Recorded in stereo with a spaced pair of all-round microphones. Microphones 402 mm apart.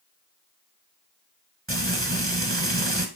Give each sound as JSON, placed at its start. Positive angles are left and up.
{"t": 1.7, "sound": "frying", "side_deg": -30, "distance_m": 1.4}